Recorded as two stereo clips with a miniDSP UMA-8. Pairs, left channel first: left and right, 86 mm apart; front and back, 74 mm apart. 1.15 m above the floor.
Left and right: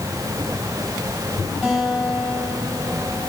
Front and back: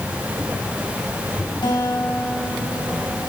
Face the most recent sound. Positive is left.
turn(degrees=0)